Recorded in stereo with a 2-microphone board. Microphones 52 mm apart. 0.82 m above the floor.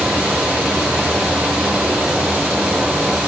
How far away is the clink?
No clink in this recording.